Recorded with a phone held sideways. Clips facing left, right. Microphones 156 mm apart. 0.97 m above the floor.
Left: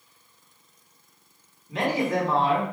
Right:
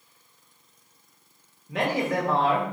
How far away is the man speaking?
About 1.2 m.